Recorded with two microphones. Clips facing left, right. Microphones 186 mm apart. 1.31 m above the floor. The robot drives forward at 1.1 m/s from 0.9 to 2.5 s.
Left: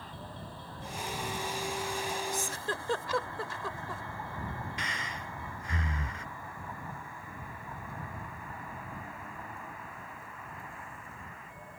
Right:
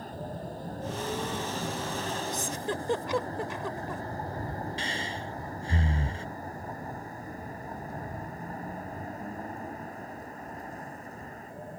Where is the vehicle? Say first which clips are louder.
Right 7 dB; 45° right (ahead or behind).